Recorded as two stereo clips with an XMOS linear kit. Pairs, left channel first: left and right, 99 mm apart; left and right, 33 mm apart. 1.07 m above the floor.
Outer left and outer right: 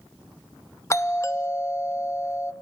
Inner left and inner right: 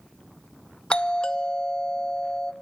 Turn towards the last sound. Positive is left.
turn(degrees=30)  # may be behind; listen again after turning